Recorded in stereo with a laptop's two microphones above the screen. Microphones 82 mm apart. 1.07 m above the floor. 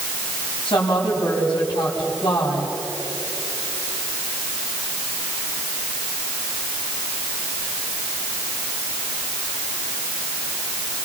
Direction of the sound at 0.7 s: 70° left (ahead or behind).